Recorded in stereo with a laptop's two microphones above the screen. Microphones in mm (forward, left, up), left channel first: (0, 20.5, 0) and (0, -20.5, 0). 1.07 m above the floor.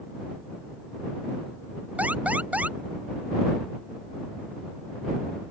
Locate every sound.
2.0 s an alarm: 40° right (ahead or behind)